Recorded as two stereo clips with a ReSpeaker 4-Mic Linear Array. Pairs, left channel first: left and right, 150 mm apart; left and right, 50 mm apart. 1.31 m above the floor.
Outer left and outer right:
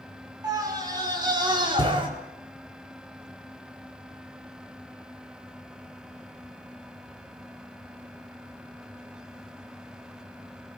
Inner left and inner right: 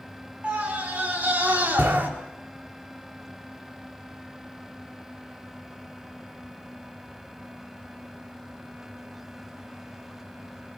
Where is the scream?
25° right (ahead or behind), 6 m; by 2.1 s 35° right (ahead or behind), 4.5 m.